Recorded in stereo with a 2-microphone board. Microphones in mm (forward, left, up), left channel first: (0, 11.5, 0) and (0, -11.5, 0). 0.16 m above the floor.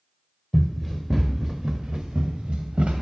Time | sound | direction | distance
0.5 | running footsteps | 15° left (ahead or behind) | 1.0 m